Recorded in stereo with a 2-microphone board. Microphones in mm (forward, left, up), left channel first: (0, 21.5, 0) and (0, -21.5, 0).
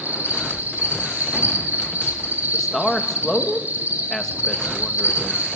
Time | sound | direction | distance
0.0 | an insect | 45° right (ahead or behind) | 5.5 m
2.5 | a man speaking | 10° left (ahead or behind) | 2.5 m